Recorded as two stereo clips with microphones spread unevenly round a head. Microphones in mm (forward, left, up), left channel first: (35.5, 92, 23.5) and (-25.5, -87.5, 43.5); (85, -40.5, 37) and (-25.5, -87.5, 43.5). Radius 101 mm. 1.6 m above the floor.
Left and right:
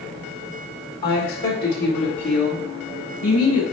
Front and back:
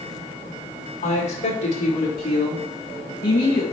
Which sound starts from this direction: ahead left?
A woman speaking, at 1.0 s.